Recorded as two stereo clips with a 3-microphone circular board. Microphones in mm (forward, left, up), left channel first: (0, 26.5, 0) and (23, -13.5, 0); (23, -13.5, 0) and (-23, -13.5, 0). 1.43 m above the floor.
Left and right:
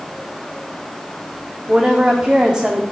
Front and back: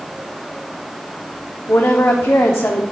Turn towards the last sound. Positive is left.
turn(degrees=5)